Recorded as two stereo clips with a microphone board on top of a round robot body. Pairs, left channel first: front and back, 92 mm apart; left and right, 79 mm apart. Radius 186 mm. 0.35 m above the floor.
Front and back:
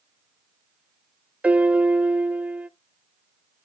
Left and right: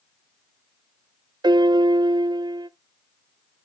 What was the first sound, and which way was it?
A piano, 105° right.